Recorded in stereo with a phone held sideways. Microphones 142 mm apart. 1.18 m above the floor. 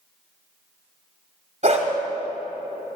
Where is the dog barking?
55° right (ahead or behind), 1.8 m.